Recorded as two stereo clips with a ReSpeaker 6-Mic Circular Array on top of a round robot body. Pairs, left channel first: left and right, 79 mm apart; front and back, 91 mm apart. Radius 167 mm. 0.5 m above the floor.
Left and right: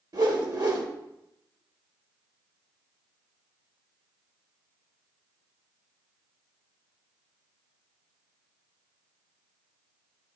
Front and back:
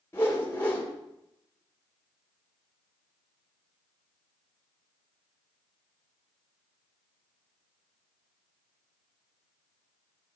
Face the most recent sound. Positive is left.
turn(degrees=-65)